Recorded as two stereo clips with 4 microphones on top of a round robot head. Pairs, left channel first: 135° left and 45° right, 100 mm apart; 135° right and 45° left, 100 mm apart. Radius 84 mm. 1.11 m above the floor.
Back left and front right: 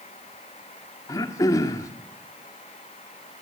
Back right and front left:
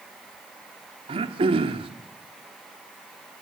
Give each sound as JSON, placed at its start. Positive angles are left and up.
{"t": 1.1, "sound": "throat clearing", "azimuth_deg": 75, "distance_m": 1.5}